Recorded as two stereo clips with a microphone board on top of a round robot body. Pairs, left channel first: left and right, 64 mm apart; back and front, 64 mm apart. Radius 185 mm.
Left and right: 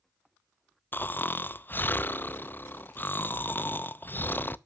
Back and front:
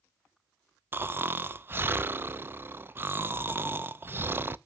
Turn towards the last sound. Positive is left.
turn(degrees=40)